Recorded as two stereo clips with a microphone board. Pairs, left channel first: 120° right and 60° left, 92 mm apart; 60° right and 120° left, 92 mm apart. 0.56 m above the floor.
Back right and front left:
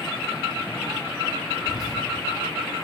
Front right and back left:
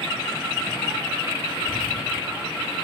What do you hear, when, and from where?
1.6 s whispering: 145° left, 0.9 m